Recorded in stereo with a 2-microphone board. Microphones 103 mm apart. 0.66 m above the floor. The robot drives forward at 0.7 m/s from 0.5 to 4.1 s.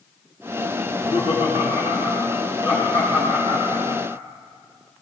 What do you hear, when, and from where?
0.8 s laughter: 60° left (ahead or behind), 5.5 m; by 4.0 s 80° left, 4.5 m